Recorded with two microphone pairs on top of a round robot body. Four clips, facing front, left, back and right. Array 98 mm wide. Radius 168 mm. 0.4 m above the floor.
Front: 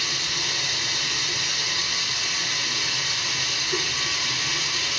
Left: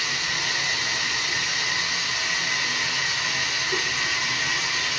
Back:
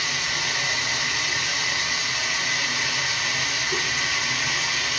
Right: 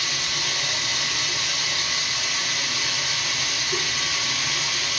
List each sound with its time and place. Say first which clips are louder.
0.0 s running water: left 2 dB, back 3 dB; 140° left, 1.9 m